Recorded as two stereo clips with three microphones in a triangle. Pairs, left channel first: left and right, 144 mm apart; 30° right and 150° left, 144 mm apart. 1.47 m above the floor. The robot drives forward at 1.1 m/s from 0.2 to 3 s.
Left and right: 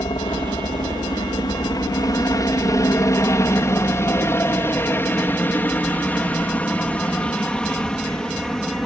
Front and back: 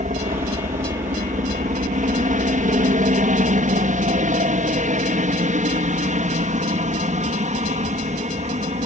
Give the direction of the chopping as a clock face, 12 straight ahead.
I don't hear chopping.